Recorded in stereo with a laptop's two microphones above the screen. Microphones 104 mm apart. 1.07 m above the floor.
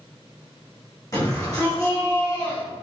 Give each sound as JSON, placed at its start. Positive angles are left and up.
{"t": 1.1, "sound": "a shout", "side_deg": 35, "distance_m": 5.0}